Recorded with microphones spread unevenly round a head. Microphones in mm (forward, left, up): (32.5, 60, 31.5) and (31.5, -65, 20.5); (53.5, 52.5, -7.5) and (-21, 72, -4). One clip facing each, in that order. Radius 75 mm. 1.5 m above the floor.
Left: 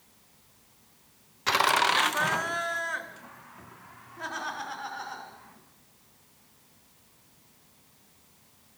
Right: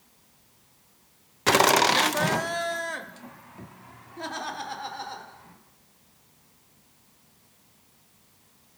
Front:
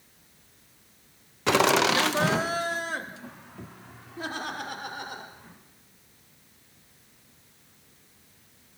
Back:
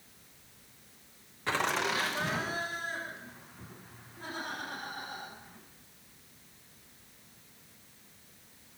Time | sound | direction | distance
1.5 | laughter | 55° right | 0.6 m